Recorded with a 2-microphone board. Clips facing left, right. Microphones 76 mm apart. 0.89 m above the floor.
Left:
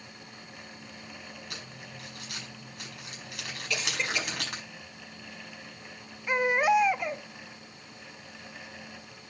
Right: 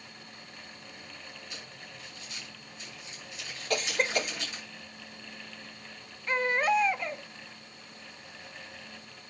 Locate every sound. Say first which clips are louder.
1.5 s crumpling: left 2 dB; 75° left (ahead or behind), 5 m
3.7 s a cough: right 4 dB; 50° right (ahead or behind), 1.0 m
6.3 s a baby crying: left 3 dB; 10° left (ahead or behind), 0.8 m